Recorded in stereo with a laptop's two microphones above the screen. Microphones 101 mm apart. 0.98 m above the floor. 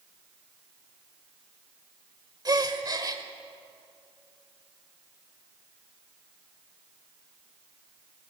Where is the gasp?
40° right (ahead or behind), 1.3 m.